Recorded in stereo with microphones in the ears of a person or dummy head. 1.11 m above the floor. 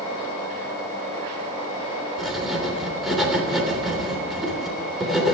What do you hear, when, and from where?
2.2 s writing: centre (ahead or behind), 3 m